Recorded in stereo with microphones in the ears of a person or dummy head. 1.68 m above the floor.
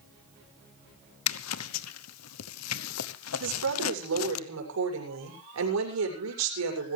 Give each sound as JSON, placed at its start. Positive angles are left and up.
{"t": 1.3, "sound": "a zipper", "side_deg": 85, "distance_m": 1.1}
{"t": 3.4, "sound": "a woman speaking", "side_deg": -80, "distance_m": 7.5}